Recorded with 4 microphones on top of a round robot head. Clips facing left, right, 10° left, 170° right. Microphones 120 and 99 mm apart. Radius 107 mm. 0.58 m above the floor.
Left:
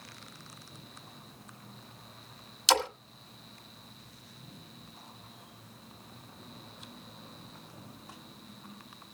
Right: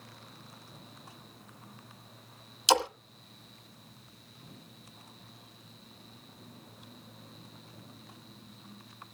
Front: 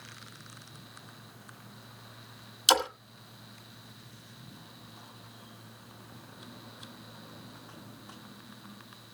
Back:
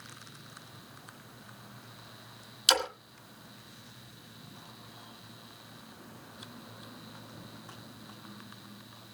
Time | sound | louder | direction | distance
2.7 | a splash | right 2 dB, front 4 dB | 25° right | 1.5 m